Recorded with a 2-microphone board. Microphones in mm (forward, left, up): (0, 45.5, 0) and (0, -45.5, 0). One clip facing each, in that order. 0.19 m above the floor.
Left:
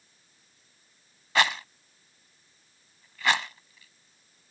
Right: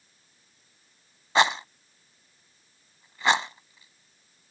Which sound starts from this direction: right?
A rattle, at 1.4 s.